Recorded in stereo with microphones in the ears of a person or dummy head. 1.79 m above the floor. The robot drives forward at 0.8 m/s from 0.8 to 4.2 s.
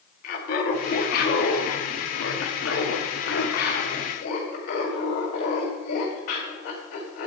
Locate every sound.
0.2 s laughter: 55° left (ahead or behind), 2 m; by 7.3 s 50° left (ahead or behind), 2.5 m